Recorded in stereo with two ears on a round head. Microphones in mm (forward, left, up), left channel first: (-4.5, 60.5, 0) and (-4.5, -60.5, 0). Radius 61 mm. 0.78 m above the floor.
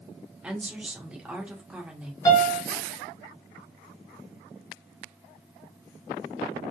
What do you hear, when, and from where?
0.4 s a woman speaking: 10° right (ahead or behind), 0.8 m
2.2 s a piano: 30° left (ahead or behind), 1.5 m